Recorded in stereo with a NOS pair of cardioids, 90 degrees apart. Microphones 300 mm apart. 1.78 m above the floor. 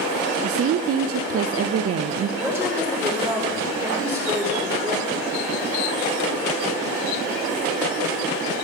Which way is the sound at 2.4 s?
5° right.